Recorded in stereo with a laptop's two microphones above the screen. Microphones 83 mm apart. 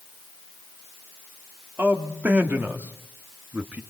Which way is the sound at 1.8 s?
20° right (ahead or behind).